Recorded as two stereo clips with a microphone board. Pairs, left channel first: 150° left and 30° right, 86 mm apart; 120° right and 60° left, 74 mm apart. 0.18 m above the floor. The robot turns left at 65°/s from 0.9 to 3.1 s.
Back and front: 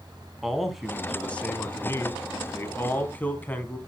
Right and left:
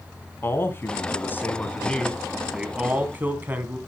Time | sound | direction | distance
0.4 | a man speaking | 115° right | 1.7 m